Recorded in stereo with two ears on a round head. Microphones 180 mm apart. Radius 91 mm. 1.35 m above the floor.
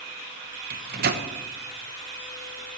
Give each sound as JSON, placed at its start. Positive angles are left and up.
{"t": 0.7, "sound": "a microwave", "side_deg": -45, "distance_m": 1.0}